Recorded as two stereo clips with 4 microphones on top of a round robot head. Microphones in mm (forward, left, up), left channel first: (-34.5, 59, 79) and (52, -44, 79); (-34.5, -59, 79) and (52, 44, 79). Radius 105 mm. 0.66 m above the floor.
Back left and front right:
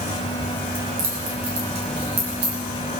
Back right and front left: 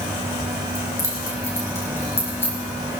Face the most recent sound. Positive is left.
turn(degrees=-55)